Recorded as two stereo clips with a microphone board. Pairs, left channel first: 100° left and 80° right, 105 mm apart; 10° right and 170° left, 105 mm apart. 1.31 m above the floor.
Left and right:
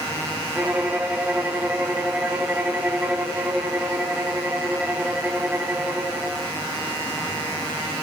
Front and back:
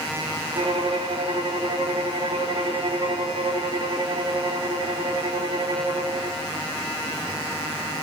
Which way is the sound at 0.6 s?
155° right.